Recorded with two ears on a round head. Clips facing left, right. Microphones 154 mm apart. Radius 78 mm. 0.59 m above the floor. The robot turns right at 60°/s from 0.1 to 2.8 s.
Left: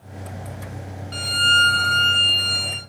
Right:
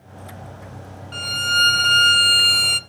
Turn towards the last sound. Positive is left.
turn(degrees=-90)